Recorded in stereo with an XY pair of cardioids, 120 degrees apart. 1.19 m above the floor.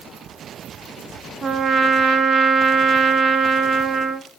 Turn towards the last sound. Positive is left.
turn(degrees=-35)